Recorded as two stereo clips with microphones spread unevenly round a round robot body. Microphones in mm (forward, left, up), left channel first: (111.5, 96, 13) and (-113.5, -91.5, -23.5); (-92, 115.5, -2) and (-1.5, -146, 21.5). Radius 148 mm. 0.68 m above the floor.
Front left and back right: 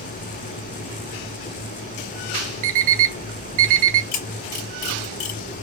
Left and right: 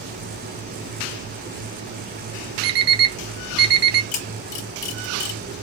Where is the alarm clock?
110° right, 1.6 m.